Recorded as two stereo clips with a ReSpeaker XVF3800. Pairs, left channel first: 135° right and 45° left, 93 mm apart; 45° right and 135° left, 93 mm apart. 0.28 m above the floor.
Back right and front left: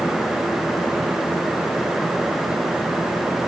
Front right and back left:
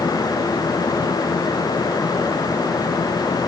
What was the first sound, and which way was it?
Only background noise.